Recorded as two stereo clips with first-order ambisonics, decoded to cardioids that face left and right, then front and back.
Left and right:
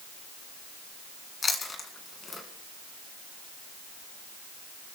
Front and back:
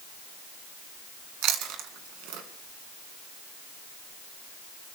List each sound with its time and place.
1.4 s chewing: 160° left, 2 m